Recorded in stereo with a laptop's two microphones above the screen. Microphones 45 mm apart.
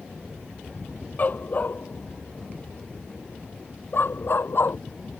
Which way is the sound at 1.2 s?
40° left (ahead or behind).